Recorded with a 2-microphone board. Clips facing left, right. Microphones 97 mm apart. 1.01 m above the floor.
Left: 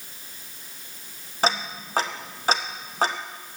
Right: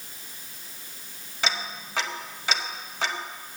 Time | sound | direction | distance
1.4 | ticking | 40° left (ahead or behind) | 0.8 m